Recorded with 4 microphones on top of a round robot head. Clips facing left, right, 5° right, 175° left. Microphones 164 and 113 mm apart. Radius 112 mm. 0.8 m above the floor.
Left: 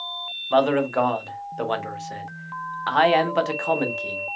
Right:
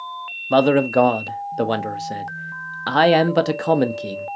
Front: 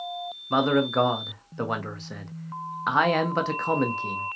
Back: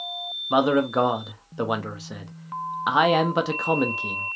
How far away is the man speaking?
About 0.8 m.